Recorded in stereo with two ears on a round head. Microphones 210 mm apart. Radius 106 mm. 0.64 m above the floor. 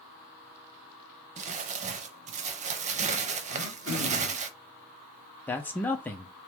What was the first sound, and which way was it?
Crumpling, 30° right (ahead or behind).